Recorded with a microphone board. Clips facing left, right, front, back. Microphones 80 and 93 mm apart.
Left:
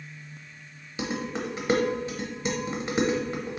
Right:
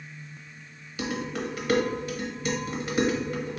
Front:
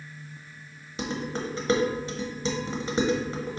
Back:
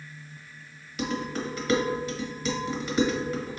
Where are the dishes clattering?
40° left, 0.8 m.